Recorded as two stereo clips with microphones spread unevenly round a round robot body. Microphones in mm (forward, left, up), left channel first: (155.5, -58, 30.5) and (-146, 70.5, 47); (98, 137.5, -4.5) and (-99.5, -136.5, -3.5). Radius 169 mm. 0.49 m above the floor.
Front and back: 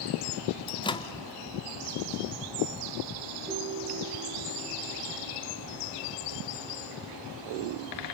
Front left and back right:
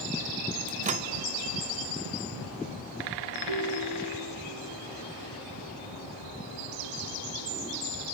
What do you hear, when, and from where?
0.7 s a microwave: 80° right, 0.5 m
3.5 s a ringtone: 125° right, 8.5 m